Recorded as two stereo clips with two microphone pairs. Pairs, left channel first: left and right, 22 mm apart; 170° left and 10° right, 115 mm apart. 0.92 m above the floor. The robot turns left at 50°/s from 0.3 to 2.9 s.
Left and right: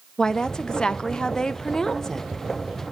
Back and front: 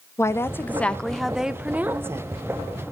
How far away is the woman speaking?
About 0.5 m.